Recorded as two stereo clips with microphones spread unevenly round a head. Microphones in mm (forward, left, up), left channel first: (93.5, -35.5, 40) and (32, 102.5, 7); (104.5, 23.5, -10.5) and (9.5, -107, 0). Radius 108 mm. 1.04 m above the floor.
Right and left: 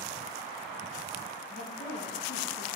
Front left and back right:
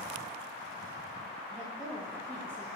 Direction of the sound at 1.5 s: 30° right.